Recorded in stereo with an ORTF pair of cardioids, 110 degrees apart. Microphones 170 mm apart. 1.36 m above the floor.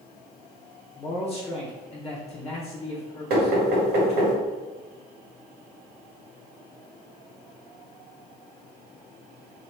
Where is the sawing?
No sawing in this recording.